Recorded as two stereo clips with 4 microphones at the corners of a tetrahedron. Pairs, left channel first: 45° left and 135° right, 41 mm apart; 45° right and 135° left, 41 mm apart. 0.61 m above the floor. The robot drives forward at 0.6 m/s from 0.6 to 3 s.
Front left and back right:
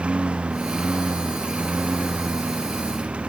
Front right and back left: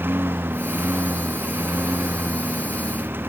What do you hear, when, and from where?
0.0 s a lawn mower: 160° left